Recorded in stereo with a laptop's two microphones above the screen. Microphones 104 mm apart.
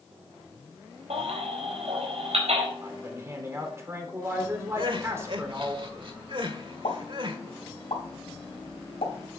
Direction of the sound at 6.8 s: 70° left (ahead or behind).